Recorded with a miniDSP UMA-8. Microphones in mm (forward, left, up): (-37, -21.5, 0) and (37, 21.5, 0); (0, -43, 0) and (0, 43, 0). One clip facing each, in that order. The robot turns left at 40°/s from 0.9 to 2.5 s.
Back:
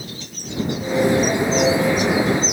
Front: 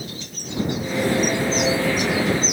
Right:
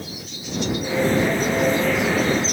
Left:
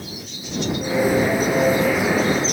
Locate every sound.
Only background noise.